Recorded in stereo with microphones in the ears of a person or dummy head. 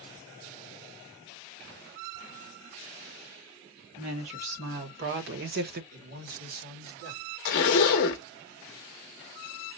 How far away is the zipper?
About 0.6 m.